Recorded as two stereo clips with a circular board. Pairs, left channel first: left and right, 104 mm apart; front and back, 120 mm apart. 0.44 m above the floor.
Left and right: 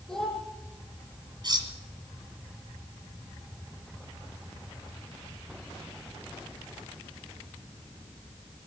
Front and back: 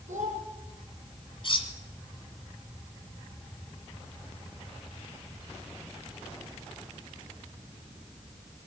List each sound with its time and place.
0.1 s a child speaking: 175° left, 8 m
1.4 s cutlery clinking: 45° right, 2 m